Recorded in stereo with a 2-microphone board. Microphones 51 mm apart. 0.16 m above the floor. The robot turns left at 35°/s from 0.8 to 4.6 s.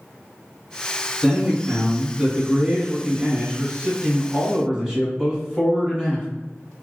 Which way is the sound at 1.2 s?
10° right (ahead or behind).